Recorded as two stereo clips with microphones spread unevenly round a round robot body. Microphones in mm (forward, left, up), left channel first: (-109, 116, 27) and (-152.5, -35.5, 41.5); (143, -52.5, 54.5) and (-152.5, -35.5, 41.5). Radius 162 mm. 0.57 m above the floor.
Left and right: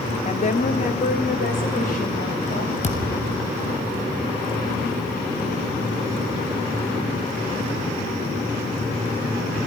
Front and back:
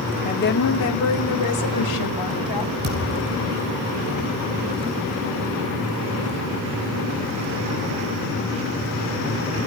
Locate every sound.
0.2 s a woman speaking: 60° left, 1.3 m; by 2.7 s 15° left, 4.5 m
2.8 s a thud: 115° left, 5 m